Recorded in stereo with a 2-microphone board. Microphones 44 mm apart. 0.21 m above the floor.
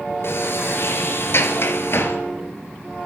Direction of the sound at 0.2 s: 60° left (ahead or behind).